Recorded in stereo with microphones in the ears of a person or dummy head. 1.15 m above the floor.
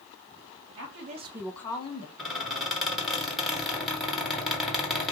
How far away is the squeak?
About 1.1 m.